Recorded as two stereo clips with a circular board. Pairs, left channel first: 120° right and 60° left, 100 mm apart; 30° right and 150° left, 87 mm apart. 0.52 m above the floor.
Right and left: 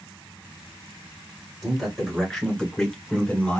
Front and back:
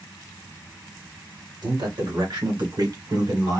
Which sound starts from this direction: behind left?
A man speaking, at 1.6 s.